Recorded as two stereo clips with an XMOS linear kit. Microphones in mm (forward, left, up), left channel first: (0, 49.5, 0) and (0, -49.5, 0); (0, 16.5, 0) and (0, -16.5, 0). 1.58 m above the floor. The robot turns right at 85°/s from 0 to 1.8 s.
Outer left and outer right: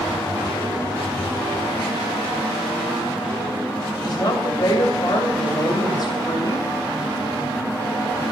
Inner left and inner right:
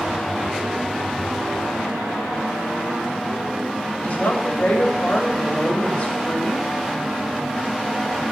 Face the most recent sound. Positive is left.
turn(degrees=45)  # may be behind; listen again after turning